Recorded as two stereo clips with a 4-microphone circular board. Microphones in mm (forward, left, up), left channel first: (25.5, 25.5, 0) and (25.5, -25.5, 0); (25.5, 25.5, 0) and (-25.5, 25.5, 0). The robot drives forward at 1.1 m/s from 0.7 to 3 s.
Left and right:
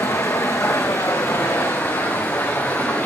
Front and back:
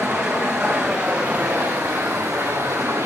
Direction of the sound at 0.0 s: 105° left.